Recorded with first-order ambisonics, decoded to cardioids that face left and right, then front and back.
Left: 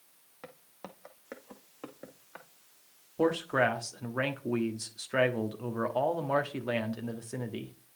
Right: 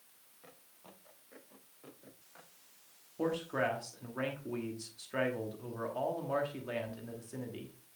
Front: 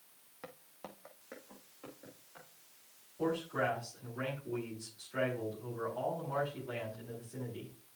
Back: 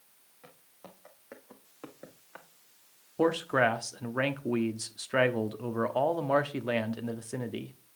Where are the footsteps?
55° left, 1.6 m; by 2.5 s 140° left, 2.5 m.